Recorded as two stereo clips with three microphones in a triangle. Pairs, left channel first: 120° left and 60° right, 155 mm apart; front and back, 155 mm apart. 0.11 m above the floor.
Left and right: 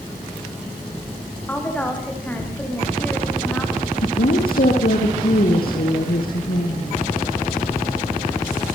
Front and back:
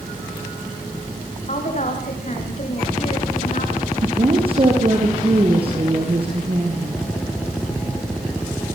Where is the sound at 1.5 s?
40° left, 8.5 m.